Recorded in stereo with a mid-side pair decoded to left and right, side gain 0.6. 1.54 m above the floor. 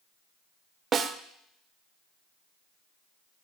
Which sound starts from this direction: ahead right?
A snare drum, at 0.9 s.